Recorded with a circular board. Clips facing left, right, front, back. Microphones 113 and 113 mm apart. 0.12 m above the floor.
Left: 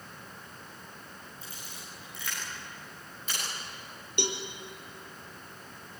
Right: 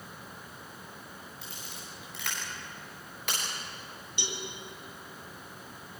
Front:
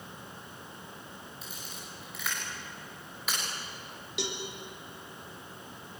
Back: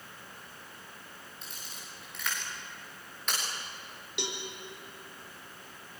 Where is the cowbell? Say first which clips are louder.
Left 7 dB, front 2 dB; 90° left, 3 m.